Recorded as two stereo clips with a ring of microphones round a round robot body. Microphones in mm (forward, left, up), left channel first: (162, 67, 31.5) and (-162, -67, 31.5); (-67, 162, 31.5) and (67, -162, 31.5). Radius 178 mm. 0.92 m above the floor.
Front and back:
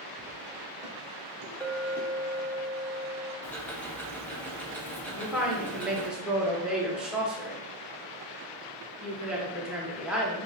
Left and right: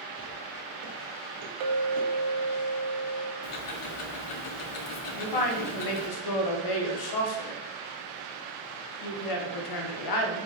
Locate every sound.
0.2 s footsteps: 80° right, 1.0 m; by 2.1 s 65° right, 2.0 m
1.6 s a clink: 65° right, 0.7 m
3.4 s ticking: 105° left, 0.6 m
5.1 s a woman speaking: 115° left, 0.8 m